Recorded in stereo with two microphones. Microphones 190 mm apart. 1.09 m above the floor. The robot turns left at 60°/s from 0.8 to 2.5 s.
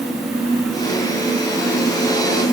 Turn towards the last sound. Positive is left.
No sound to turn to.